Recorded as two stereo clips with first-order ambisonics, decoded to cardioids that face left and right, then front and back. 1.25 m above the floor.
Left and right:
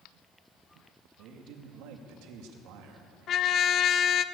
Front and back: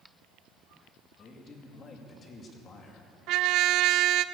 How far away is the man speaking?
About 2 m.